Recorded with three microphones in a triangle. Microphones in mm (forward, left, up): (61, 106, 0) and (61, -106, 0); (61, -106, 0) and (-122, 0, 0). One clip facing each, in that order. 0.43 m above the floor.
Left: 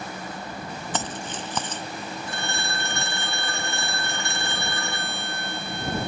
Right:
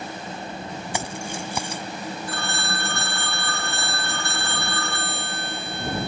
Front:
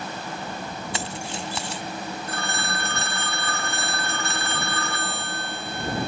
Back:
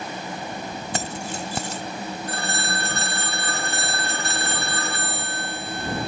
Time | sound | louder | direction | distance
0.9 | keys jangling | right 1 dB, back 4 dB | 170° right | ?
2.3 | a phone ringing | right 2 dB, back 2 dB | 140° left | ?